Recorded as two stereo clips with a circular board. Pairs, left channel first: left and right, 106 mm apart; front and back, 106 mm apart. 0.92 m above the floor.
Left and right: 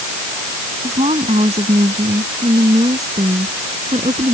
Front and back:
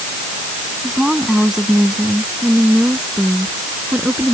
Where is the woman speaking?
95° right; by 4.3 s 100° right.